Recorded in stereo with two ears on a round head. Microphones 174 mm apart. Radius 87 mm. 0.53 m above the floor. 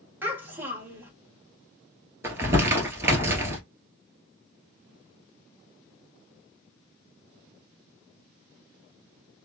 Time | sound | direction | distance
0.2 | a child speaking | 10° right (ahead or behind) | 1.7 m
2.2 | crumpling | 10° right (ahead or behind) | 1.4 m